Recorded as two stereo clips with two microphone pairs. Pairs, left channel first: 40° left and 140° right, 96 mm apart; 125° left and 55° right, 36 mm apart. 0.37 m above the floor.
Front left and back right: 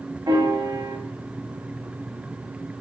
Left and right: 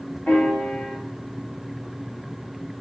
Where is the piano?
175° left, 1.0 m.